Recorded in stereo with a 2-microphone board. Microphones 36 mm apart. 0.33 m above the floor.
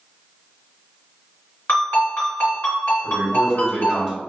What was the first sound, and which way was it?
A ringtone, 70° left (ahead or behind).